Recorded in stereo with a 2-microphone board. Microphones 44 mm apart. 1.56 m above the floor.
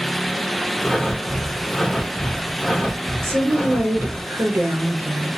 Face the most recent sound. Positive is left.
turn(degrees=-85)